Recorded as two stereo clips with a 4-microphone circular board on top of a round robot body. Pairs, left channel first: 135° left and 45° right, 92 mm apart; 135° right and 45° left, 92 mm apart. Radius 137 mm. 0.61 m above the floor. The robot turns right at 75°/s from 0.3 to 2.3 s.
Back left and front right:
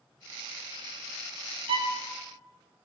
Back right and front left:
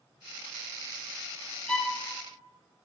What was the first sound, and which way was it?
A violin, 55° right.